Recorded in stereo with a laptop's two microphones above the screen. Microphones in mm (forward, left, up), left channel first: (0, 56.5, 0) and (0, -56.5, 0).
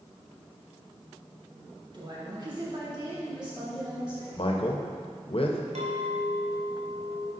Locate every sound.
1.9 s a woman speaking: 40° right (ahead or behind), 1.4 m
4.4 s a man speaking: 55° left (ahead or behind), 0.7 m
5.8 s a clink: 85° right, 2 m